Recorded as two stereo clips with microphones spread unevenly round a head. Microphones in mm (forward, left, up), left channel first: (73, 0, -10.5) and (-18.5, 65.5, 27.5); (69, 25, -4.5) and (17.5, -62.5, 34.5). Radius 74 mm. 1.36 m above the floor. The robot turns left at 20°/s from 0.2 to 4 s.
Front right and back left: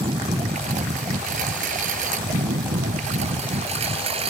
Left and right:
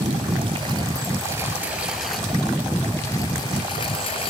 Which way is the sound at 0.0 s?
165° right.